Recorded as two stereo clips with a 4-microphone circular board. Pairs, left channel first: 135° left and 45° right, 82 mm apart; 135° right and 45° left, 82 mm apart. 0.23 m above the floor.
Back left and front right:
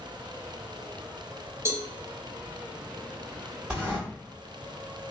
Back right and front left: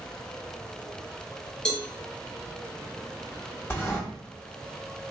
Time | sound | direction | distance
1.6 | a cowbell | 55° right | 0.6 m
3.7 | a sliding door | 115° right | 1.6 m